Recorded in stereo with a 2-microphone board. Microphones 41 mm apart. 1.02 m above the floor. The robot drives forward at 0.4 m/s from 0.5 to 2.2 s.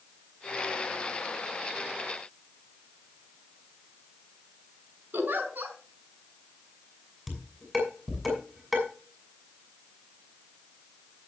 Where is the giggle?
55° right (ahead or behind), 4.5 m.